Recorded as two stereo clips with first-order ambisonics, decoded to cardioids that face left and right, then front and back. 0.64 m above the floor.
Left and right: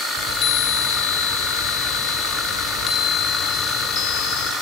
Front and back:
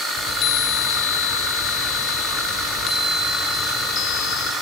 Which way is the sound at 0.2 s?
45° left.